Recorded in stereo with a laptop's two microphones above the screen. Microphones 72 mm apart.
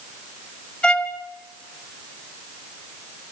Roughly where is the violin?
Centre.